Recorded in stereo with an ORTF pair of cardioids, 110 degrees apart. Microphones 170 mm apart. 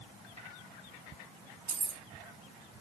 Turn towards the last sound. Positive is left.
turn(degrees=-55)